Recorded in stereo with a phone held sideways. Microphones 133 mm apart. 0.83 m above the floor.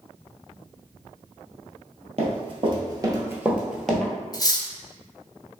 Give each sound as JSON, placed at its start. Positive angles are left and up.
{"t": 2.2, "sound": "running footsteps", "side_deg": -50, "distance_m": 1.2}
{"t": 4.3, "sound": "cutlery clinking", "side_deg": 30, "distance_m": 0.6}